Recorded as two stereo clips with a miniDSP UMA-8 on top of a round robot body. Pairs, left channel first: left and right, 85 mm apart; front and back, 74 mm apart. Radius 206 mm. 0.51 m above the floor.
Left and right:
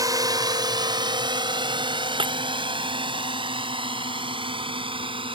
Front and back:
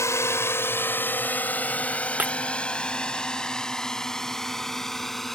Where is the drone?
50° right; by 5.4 s 90° right.